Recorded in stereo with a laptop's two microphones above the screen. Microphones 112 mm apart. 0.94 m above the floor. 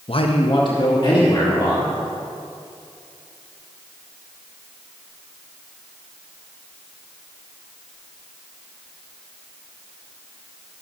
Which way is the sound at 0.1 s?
55° left (ahead or behind).